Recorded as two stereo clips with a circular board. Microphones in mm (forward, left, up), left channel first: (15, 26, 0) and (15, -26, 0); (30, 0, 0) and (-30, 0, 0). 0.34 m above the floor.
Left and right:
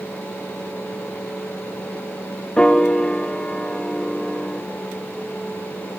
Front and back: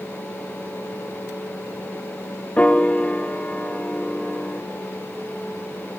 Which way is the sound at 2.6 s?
35° left.